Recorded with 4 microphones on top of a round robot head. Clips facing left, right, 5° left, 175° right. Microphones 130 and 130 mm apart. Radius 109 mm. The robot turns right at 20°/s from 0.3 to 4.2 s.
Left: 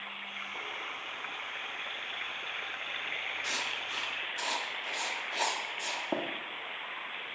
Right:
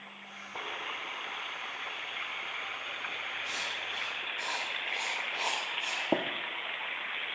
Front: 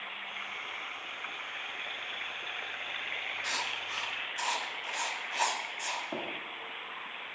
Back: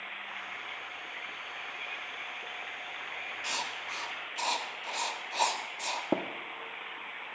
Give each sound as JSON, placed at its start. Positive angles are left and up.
{"t": 3.4, "sound": "writing", "azimuth_deg": 110, "distance_m": 1.2}
{"t": 6.1, "sound": "tapping", "azimuth_deg": -155, "distance_m": 0.8}